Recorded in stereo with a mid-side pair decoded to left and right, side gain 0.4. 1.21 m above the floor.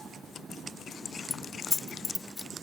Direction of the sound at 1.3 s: 35° left.